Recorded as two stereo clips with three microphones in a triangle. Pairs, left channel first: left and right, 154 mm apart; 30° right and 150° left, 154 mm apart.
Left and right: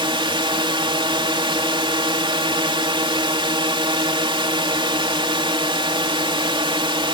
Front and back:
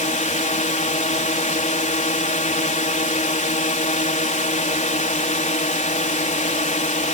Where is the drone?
40° right.